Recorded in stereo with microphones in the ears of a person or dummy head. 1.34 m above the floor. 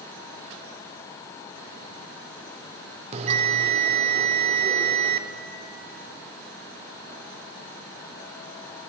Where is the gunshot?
No gunshot in this recording.